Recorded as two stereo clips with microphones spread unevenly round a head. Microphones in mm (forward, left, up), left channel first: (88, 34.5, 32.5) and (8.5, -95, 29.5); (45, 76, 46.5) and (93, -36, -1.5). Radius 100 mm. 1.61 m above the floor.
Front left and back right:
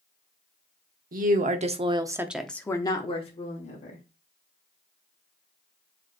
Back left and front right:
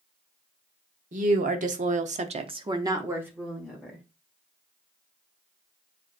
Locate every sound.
1.1 s a woman speaking: 90° right, 1.2 m; by 4.0 s 20° left, 1.6 m